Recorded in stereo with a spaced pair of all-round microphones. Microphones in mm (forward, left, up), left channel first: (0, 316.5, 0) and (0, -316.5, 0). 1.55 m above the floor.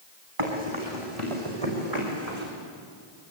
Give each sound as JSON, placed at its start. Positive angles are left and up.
{"t": 0.4, "sound": "running footsteps", "side_deg": -55, "distance_m": 5.0}